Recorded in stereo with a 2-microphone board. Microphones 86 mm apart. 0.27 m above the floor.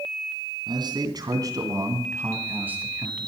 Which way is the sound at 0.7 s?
60° right (ahead or behind).